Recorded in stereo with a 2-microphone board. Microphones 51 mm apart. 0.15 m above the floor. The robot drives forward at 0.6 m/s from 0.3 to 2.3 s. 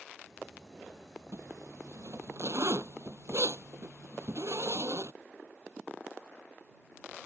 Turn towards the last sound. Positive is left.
turn(degrees=-75)  # may be behind; listen again after turning